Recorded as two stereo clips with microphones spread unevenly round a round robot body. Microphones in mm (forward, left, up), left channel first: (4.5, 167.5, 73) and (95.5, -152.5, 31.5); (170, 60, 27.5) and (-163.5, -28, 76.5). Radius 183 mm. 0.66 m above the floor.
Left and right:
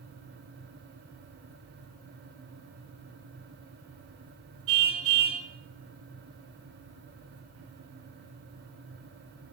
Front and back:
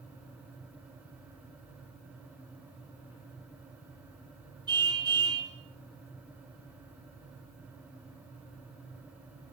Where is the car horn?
85° right, 4 m.